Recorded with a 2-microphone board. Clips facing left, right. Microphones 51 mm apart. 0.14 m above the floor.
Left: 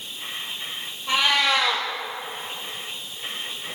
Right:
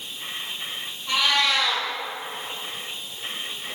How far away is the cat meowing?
About 2 m.